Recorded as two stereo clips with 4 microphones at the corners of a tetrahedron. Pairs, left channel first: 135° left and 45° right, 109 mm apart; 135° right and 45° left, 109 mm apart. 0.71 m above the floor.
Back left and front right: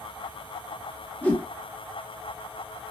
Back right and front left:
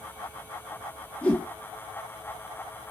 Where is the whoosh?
175° left, 0.8 m.